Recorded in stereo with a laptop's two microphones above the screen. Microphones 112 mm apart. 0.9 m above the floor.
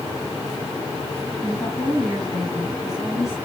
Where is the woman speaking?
Centre (ahead or behind), 5.5 m.